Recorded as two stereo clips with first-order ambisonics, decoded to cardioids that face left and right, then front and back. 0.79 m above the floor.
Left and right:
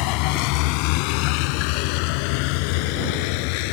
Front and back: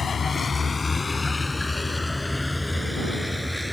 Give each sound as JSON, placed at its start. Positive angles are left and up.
{"t": 0.0, "sound": "a vehicle", "azimuth_deg": 70}